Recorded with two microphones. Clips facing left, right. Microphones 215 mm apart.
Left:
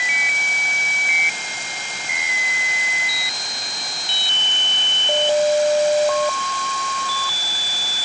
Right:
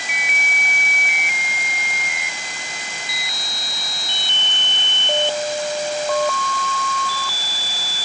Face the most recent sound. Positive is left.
No sound to turn to.